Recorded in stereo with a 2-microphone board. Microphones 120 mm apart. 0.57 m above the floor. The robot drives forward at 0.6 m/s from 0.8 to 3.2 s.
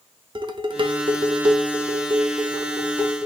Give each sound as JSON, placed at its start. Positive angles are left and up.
{"t": 0.3, "sound": "dishes clattering", "side_deg": -40, "distance_m": 0.5}